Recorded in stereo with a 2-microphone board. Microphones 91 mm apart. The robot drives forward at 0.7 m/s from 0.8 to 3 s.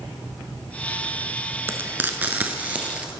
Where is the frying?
25° right (ahead or behind), 0.7 m; by 3.1 s 15° right (ahead or behind), 1.3 m.